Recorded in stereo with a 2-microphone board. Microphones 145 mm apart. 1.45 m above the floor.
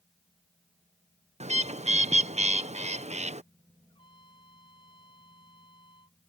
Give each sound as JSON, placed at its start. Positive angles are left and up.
{"t": 1.4, "sound": "a bird", "side_deg": -50}
{"t": 3.9, "sound": "a trumpet", "side_deg": 35}